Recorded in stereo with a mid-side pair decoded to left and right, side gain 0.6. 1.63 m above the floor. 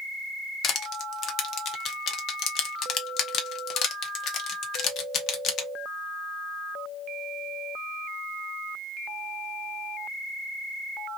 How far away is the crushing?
About 0.8 m.